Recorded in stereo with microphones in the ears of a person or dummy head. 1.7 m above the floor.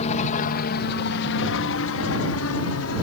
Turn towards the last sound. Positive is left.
turn(degrees=75)  # may be behind; listen again after turning